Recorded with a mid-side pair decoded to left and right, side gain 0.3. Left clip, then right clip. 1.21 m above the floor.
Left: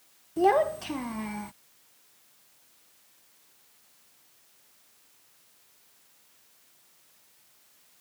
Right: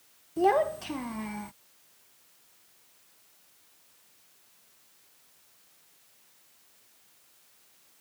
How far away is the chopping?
I don't hear chopping.